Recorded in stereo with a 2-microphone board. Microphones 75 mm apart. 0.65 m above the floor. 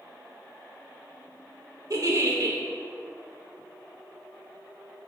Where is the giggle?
50° right (ahead or behind), 1.1 m.